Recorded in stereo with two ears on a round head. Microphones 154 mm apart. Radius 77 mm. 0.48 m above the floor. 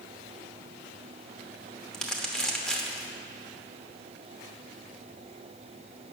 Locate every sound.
1.9 s crumpling: 5° left (ahead or behind), 1.0 m